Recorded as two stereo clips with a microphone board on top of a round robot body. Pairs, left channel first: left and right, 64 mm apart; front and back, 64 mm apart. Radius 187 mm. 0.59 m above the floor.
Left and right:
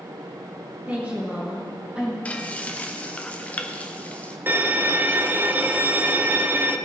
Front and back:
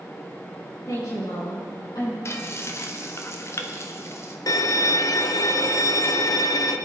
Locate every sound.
0.9 s a woman speaking: 25° right, 6.5 m; by 2.1 s 20° right, 7 m
2.2 s frying: 25° left, 1.6 m
4.5 s a violin: 30° right, 0.8 m